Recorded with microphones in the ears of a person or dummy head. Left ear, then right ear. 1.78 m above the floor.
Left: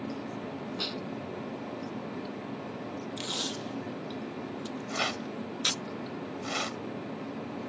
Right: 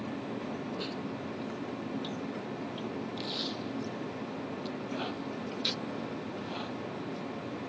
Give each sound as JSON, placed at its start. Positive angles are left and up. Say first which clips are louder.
{"t": 0.8, "sound": "a snare drum", "louder": "left 8 dB", "side_deg": 35}
{"t": 3.2, "sound": "tape being pulled", "louder": "left 3 dB", "side_deg": 40}
{"t": 4.9, "sound": "a rattle", "louder": "left 9 dB", "side_deg": 65}